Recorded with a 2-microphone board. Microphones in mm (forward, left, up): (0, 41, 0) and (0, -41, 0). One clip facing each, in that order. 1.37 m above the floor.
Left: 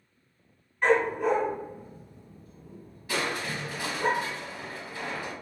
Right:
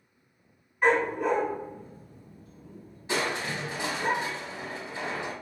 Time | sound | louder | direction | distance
0.8 | a dog barking | left 1 dB | 10° right (ahead or behind) | 1.1 m
3.1 | crushing | right 1 dB | 25° right (ahead or behind) | 0.7 m